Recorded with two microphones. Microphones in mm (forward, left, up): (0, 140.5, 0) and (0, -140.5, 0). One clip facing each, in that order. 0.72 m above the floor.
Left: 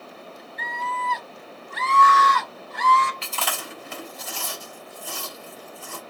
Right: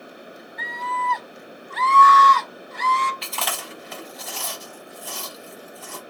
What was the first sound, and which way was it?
A scream, 30° left (ahead or behind).